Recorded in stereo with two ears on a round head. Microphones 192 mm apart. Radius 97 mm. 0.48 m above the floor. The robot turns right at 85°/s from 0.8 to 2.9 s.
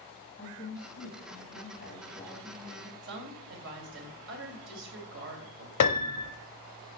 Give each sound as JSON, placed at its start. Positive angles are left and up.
{"t": 0.4, "sound": "a woman speaking", "azimuth_deg": 45, "distance_m": 3.0}
{"t": 3.0, "sound": "a woman speaking", "side_deg": -60, "distance_m": 2.5}
{"t": 5.8, "sound": "a piano", "side_deg": 85, "distance_m": 0.7}